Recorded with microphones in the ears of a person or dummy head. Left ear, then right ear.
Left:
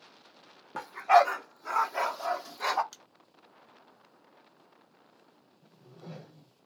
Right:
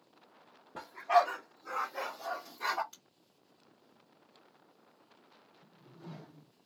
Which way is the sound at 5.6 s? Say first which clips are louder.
Left 4 dB; 20° left (ahead or behind).